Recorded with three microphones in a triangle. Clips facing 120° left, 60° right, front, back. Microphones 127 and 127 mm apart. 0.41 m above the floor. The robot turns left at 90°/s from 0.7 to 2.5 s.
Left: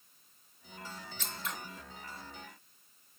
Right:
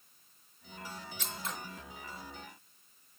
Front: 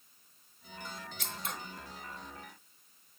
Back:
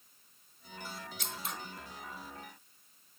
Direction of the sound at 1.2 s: 15° left.